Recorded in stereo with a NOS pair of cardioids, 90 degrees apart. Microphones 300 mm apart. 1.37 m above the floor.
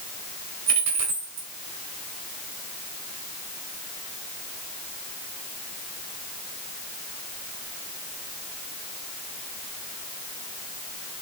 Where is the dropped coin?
65° right, 3 m.